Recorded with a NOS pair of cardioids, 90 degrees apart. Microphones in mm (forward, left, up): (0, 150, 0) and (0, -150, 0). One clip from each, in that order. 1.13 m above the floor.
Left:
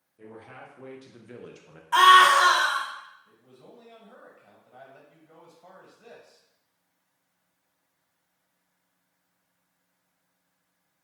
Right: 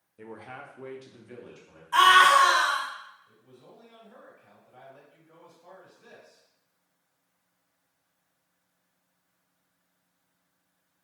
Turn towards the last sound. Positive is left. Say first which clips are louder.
# left 1 dB
turn(degrees=40)